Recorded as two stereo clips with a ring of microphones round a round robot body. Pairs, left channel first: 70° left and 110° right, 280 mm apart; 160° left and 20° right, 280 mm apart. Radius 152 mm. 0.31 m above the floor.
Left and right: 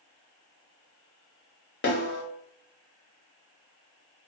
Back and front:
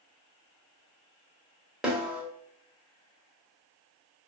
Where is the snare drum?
65° left, 1.1 m.